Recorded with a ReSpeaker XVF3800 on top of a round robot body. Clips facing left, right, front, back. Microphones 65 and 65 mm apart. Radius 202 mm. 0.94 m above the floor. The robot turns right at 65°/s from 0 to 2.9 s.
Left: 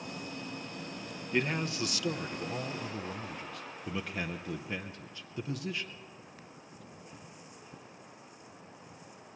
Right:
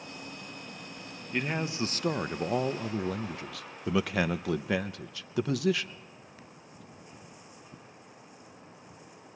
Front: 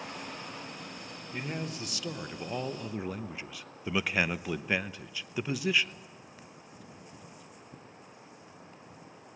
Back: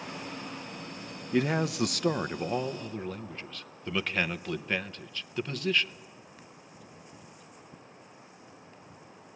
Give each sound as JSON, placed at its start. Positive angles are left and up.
{"t": 1.3, "sound": "a man speaking", "azimuth_deg": 175, "distance_m": 0.7}